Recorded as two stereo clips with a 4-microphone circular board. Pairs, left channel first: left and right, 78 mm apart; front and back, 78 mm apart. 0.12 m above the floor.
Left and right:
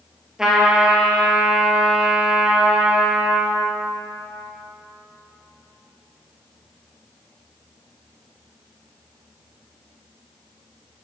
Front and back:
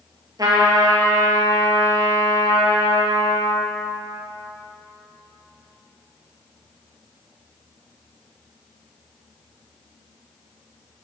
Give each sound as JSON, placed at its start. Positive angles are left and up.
{"t": 0.4, "sound": "a trumpet", "azimuth_deg": -170, "distance_m": 1.7}